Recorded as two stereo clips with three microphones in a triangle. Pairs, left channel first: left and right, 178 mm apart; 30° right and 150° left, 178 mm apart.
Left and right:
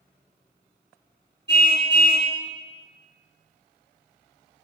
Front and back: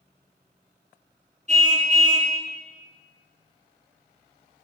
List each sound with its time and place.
1.5 s a car horn: 100° left, 4 m